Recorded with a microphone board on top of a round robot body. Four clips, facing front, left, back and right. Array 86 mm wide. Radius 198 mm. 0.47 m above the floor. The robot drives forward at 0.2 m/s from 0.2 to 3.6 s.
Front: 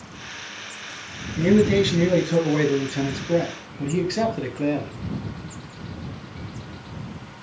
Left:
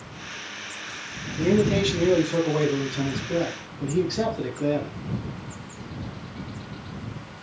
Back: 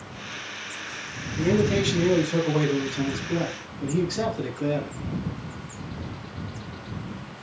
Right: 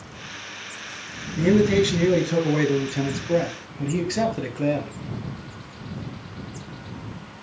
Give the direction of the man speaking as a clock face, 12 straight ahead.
2 o'clock.